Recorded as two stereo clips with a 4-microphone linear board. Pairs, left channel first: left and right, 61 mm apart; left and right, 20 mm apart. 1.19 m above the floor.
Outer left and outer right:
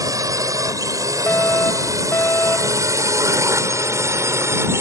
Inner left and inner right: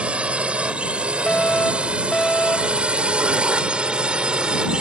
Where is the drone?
75° right (ahead or behind); by 4.8 s 50° right (ahead or behind).